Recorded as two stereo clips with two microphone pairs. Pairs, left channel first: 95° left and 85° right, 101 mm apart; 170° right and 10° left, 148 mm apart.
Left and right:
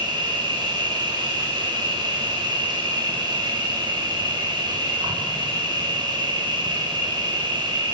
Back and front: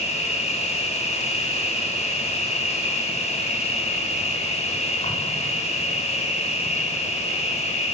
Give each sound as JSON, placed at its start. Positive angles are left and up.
{"t": 0.0, "sound": "an insect", "azimuth_deg": -125, "distance_m": 7.0}